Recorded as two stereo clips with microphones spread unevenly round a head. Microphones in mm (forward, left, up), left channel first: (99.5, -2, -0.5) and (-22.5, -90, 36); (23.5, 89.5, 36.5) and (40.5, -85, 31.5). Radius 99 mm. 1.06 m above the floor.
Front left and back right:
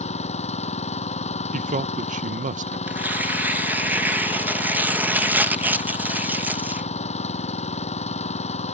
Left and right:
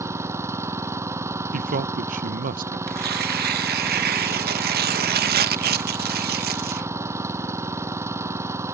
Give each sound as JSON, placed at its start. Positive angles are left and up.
{"t": 0.0, "sound": "an engine running", "azimuth_deg": -10}
{"t": 1.5, "sound": "a man speaking", "azimuth_deg": -105}
{"t": 2.9, "sound": "tearing paper", "azimuth_deg": -60}